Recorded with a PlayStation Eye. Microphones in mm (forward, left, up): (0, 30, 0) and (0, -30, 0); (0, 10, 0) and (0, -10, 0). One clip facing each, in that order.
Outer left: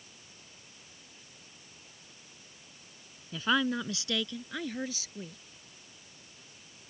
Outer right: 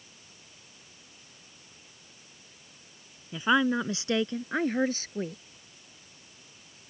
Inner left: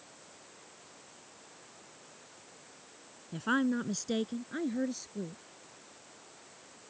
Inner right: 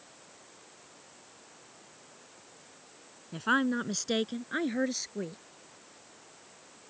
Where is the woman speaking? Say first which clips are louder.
Outer right 4 dB, inner right 2 dB; 15° right (ahead or behind); by 5.4 s 45° right (ahead or behind).